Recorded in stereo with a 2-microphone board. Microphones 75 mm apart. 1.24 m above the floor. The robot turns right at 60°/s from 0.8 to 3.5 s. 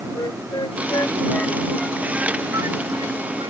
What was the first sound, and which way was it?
A flute, 60° left (ahead or behind).